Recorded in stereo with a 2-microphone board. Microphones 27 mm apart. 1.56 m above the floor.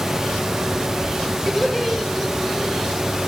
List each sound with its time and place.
1.5 s laughter: centre (ahead or behind), 6.5 m; by 3.1 s 10° right (ahead or behind), 7 m